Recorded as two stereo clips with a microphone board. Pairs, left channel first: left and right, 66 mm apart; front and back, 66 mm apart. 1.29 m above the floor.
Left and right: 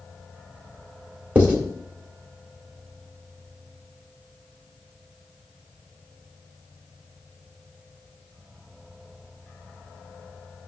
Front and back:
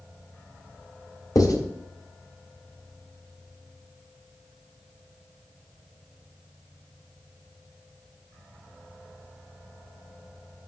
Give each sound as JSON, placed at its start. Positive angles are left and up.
{"t": 1.4, "sound": "writing", "azimuth_deg": -25, "distance_m": 2.5}